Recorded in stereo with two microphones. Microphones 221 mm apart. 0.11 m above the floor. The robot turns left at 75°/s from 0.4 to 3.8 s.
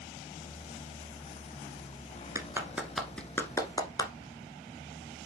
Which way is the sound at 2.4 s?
15° right (ahead or behind).